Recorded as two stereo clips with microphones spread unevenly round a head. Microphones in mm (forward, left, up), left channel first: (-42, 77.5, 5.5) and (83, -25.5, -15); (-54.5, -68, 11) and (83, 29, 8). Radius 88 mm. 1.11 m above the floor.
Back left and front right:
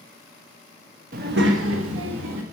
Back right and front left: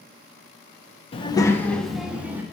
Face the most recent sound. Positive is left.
turn(degrees=-45)